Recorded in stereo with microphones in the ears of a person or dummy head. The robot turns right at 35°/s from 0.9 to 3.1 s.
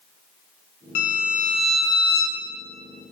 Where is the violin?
115° left, 0.7 m; by 2.4 s 165° left, 0.7 m.